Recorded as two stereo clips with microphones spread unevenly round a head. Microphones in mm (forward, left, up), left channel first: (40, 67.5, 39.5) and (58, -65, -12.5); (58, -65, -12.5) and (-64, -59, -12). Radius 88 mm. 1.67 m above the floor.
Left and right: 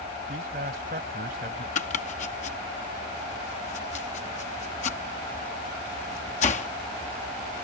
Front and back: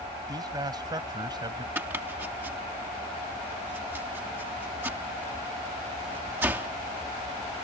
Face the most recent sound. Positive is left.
turn(degrees=100)